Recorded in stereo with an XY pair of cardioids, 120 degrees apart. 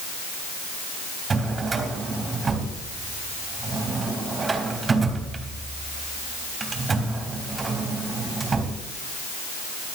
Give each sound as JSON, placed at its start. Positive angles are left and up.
{"t": 1.3, "sound": "a drawer", "azimuth_deg": -30, "distance_m": 3.5}